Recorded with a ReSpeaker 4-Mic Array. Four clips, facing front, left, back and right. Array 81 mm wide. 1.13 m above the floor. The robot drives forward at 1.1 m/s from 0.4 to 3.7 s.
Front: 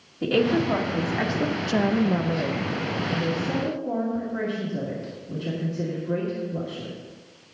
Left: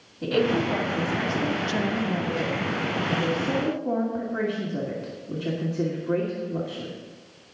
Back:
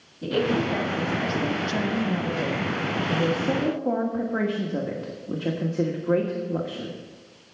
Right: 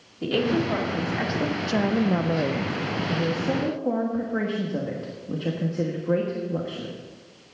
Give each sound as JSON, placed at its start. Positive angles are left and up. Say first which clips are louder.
{"t": 0.2, "sound": "a woman speaking", "louder": "even, front 2 dB", "azimuth_deg": -15, "distance_m": 2.5}